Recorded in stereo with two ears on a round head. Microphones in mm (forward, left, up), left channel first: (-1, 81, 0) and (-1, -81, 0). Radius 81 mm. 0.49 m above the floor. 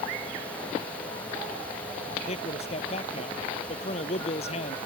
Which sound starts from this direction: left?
A man speaking, at 2.3 s.